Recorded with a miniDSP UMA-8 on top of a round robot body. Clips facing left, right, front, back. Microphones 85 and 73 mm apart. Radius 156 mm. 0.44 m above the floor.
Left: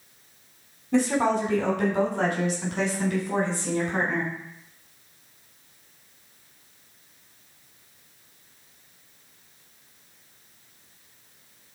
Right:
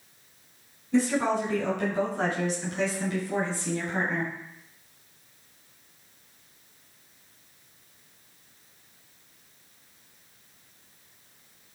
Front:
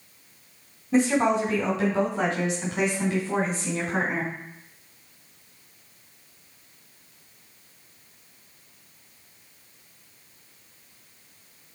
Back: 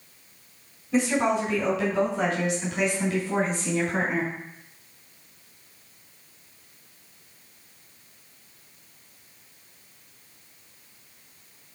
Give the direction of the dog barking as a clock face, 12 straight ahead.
No dog barking in this recording.